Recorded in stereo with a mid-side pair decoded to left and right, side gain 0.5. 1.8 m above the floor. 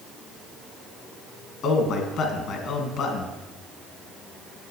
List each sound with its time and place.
1.6 s a man speaking: 65° left, 2.0 m